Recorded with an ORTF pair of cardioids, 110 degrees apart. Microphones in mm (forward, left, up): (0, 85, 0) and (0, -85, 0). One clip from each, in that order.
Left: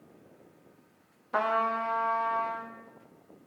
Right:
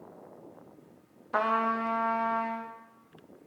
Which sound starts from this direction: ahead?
A trumpet, at 1.3 s.